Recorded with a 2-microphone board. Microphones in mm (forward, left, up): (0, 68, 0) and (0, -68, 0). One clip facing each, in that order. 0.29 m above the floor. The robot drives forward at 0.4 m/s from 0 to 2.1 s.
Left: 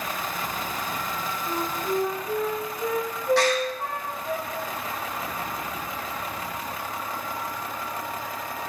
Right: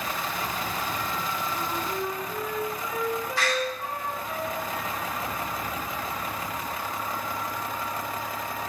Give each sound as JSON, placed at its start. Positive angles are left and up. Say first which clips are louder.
{"t": 1.5, "sound": "a flute", "louder": "left 3 dB", "side_deg": 60, "distance_m": 9.0}
{"t": 3.4, "sound": "a door slam", "louder": "left 8 dB", "side_deg": 75, "distance_m": 9.0}